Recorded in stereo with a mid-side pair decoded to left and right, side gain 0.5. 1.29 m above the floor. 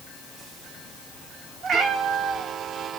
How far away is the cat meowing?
About 3 m.